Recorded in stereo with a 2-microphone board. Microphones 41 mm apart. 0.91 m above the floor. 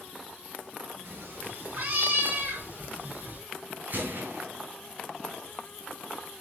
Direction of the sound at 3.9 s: 50° right (ahead or behind).